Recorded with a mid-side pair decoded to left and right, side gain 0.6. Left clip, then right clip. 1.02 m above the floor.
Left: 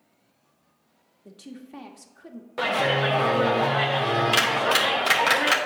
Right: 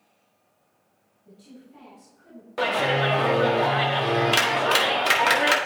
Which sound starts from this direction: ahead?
A clap, at 2.6 s.